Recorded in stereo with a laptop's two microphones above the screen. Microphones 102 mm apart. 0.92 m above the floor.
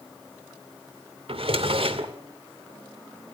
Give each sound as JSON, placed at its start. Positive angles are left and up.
{"t": 1.3, "sound": "a drawer", "side_deg": -65, "distance_m": 2.0}